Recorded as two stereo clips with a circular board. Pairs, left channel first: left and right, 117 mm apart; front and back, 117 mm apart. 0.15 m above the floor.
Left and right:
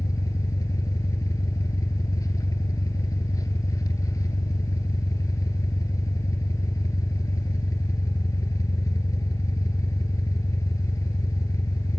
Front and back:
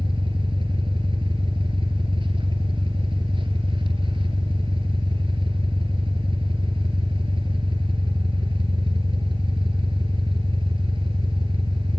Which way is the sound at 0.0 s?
145° left.